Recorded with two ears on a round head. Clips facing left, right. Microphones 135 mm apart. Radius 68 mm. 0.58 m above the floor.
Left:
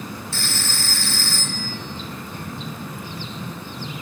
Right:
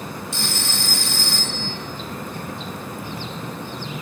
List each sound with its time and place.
0.3 s a phone ringing: 15° right (ahead or behind), 2.5 m